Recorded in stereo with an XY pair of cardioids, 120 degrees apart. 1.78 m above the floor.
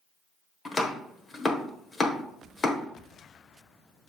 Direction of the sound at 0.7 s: 25° left.